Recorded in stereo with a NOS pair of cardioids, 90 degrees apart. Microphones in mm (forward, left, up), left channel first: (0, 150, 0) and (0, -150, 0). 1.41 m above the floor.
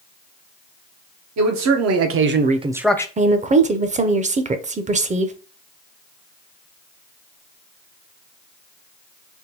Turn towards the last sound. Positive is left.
turn(degrees=-25)